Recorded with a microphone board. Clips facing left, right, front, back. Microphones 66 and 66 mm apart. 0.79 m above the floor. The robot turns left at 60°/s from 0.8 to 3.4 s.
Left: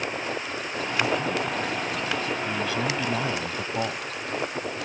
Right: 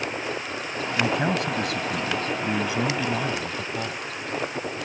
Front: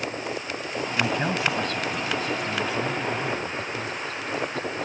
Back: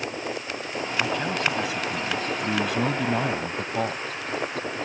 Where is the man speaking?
55° right; by 4.0 s 160° left.